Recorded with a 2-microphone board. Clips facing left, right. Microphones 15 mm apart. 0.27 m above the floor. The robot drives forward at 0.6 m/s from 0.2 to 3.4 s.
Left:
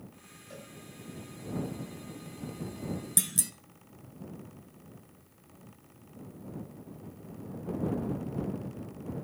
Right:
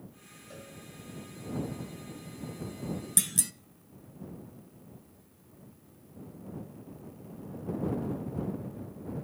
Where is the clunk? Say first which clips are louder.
Right 1 dB; centre (ahead or behind), 0.6 m.